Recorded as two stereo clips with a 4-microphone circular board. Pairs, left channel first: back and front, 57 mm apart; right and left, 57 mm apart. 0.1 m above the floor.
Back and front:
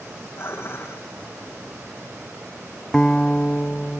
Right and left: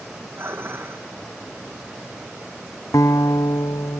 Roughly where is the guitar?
Right.